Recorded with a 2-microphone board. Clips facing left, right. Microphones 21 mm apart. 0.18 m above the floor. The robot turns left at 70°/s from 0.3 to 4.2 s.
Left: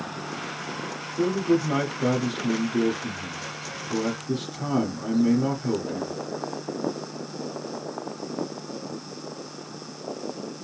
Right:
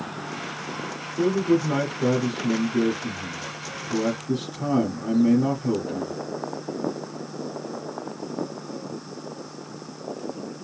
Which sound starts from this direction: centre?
A man speaking, at 1.2 s.